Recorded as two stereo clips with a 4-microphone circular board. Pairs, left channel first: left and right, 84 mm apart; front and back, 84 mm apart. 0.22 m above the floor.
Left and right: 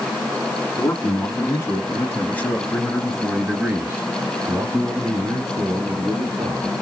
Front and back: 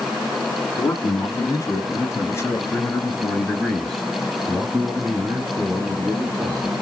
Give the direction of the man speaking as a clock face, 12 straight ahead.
10 o'clock.